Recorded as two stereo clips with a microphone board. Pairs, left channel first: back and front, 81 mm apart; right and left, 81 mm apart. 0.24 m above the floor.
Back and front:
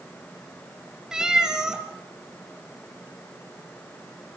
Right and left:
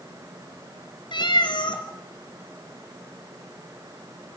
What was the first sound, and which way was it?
A cat meowing, 80° right.